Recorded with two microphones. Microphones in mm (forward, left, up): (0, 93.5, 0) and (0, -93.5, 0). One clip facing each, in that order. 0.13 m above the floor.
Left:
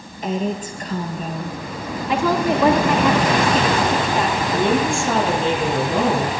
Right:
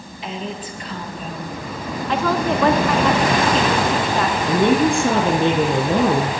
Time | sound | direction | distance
0.2 | a woman speaking | 50° left (ahead or behind) | 2 m
2.1 | a woman speaking | 15° left (ahead or behind) | 1.1 m
4.5 | a woman speaking | 70° right (ahead or behind) | 4 m